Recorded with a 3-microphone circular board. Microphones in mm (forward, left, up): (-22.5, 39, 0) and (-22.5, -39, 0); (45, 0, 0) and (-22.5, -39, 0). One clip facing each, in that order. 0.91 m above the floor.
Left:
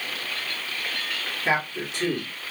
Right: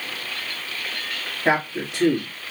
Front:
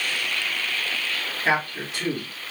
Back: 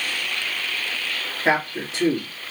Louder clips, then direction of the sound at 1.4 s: Right 4 dB, back 3 dB; 90° right.